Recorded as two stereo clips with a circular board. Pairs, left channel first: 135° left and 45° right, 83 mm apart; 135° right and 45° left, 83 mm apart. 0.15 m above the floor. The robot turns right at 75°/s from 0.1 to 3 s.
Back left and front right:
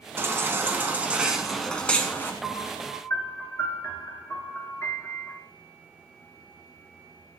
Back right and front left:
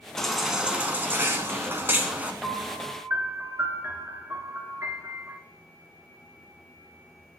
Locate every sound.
0.2 s a baby crying: 55° right, 0.9 m; by 2.3 s 105° left, 0.9 m
2.4 s a piano: 50° left, 1.4 m; by 5.4 s 90° left, 1.4 m